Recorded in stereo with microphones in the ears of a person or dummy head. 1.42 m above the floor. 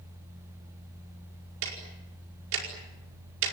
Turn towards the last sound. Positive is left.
turn(degrees=-75)  # may be behind; listen again after turning